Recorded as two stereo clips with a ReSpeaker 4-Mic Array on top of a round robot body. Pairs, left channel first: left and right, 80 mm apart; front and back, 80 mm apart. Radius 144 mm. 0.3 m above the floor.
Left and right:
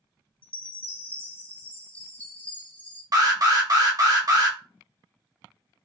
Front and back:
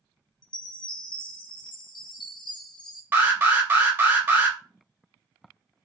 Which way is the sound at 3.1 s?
120° right.